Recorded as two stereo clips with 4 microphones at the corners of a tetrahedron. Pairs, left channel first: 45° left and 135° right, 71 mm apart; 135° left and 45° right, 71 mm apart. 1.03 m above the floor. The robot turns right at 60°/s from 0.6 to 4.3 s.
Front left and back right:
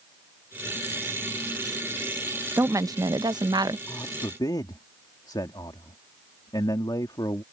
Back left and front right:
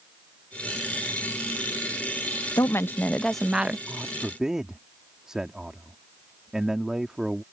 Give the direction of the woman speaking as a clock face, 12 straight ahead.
6 o'clock.